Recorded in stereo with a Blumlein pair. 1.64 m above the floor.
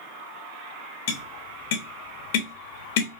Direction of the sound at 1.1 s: 50° left.